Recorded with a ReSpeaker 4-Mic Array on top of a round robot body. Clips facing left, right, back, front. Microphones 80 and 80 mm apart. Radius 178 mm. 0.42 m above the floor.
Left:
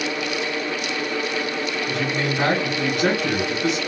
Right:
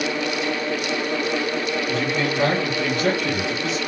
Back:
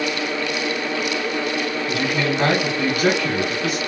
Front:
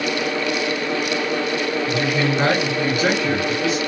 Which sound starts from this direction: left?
A man speaking, at 1.9 s.